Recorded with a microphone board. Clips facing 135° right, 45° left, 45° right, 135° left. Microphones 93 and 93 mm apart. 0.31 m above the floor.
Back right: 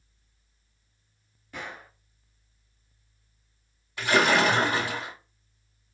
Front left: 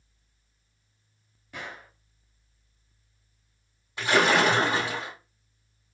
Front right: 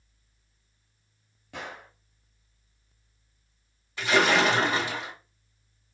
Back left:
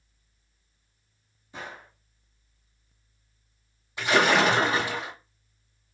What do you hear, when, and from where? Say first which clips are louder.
1.5 s a gunshot: back right 1 dB, front right 1 dB; 40° right, 0.9 m
4.0 s a splash: even, back left 1 dB; 85° left, 1.6 m